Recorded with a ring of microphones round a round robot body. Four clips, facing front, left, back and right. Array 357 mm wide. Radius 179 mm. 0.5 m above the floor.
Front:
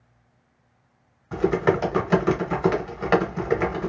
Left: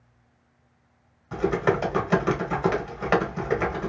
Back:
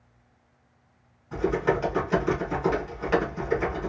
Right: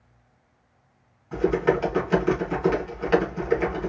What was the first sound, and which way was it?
Typing on a keyboard, 35° left.